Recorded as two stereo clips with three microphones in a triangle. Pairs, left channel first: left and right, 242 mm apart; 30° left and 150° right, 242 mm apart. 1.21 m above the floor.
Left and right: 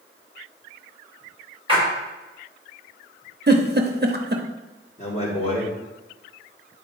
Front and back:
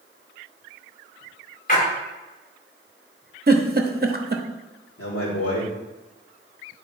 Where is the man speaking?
30° left, 2.5 m.